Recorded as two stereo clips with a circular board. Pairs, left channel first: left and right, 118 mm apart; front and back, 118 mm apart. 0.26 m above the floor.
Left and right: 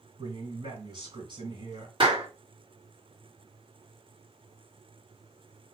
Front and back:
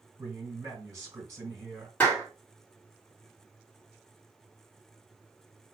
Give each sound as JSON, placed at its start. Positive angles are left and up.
{"t": 0.2, "sound": "a man speaking", "azimuth_deg": -120, "distance_m": 2.5}
{"t": 2.0, "sound": "a clap", "azimuth_deg": -75, "distance_m": 1.8}